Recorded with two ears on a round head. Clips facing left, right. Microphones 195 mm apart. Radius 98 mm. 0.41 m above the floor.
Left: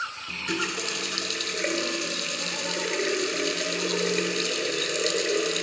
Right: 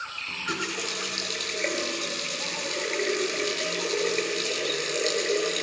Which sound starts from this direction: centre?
A running tap, at 0.3 s.